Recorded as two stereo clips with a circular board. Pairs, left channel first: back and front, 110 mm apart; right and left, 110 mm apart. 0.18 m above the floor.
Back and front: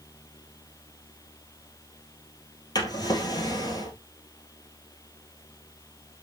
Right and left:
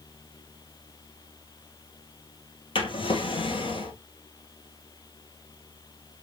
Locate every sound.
2.8 s a drawer: 125° right, 1.5 m